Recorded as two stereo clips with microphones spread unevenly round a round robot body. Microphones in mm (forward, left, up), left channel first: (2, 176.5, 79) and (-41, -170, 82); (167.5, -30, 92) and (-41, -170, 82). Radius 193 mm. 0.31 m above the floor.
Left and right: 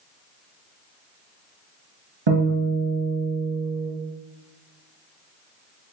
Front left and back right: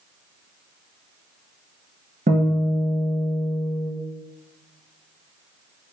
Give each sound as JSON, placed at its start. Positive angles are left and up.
{"t": 2.3, "sound": "a guitar", "azimuth_deg": -85, "distance_m": 1.7}